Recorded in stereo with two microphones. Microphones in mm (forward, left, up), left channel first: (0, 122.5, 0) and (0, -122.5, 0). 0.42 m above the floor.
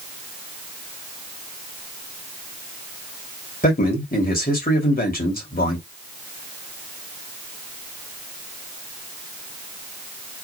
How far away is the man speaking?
About 2.0 m.